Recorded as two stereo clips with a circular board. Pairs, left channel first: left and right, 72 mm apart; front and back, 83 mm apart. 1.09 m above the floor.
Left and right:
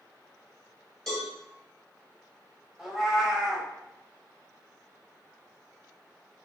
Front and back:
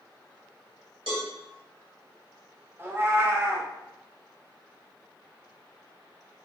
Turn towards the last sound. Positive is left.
turn(degrees=-170)